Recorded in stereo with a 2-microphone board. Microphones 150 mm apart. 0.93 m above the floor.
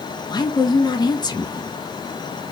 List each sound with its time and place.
0.3 s a woman speaking: 25° left (ahead or behind), 0.8 m